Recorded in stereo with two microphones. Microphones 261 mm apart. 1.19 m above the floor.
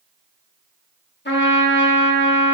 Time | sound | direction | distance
1.2 | a trumpet | 45° left (ahead or behind) | 0.9 m